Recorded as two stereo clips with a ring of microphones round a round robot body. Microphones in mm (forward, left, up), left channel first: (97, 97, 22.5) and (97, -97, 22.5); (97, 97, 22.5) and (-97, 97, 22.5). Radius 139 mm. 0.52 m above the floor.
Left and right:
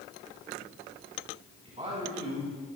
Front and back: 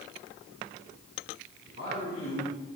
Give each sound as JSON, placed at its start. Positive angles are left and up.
{"t": 1.6, "sound": "a man speaking", "azimuth_deg": -35, "distance_m": 5.0}